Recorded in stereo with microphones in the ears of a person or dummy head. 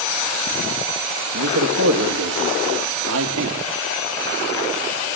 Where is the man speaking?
80° right, 2.5 m; by 3.6 s 70° right (ahead or behind), 1.7 m.